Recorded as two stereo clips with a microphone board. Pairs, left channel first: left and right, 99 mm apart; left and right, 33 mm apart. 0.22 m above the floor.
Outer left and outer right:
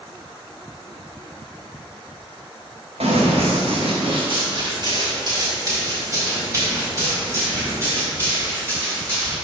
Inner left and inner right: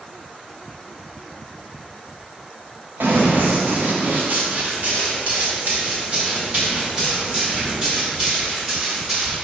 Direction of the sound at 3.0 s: 85° right.